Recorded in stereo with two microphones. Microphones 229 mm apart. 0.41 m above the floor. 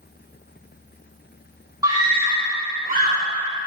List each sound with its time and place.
1.8 s a scream: 15° right (ahead or behind), 1.6 m; by 3.2 s 40° right (ahead or behind), 1.7 m